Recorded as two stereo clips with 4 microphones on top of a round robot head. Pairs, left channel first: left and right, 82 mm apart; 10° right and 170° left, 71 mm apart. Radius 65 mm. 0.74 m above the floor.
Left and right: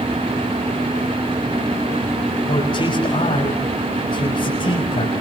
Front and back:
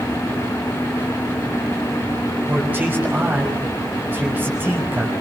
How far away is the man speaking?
About 5.5 m.